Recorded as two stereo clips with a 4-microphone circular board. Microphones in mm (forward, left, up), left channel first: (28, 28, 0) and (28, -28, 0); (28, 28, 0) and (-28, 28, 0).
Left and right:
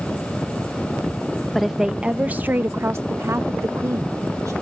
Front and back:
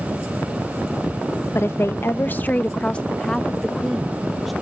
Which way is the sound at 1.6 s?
Straight ahead.